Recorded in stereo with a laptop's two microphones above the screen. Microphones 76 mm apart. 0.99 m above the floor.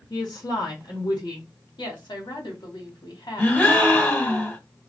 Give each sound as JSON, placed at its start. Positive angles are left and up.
{"t": 0.1, "sound": "a woman speaking", "side_deg": 70, "distance_m": 1.4}
{"t": 1.8, "sound": "a woman speaking", "side_deg": 80, "distance_m": 1.6}
{"t": 3.4, "sound": "a gasp", "side_deg": 25, "distance_m": 1.7}